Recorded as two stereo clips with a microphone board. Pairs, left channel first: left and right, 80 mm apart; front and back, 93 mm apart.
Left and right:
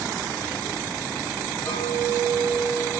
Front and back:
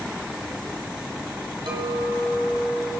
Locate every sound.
1.7 s a clink: 145° left, 6.5 m